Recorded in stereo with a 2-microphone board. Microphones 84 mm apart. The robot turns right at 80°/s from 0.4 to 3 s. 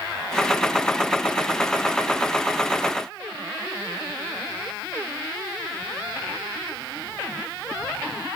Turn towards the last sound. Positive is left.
No sound to turn to.